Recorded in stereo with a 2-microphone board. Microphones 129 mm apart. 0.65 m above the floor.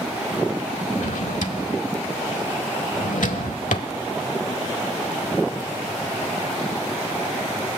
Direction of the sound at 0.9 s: 80° left.